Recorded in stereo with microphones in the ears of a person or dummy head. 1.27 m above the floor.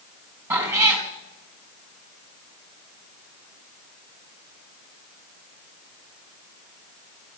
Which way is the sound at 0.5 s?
10° right (ahead or behind).